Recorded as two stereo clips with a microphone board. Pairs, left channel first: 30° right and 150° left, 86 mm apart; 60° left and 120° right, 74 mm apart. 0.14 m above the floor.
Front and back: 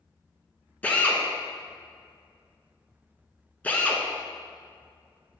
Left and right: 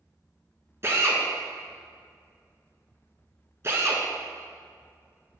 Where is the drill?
95° right, 0.9 m.